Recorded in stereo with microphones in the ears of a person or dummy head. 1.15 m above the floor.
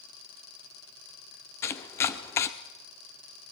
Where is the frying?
No frying in this recording.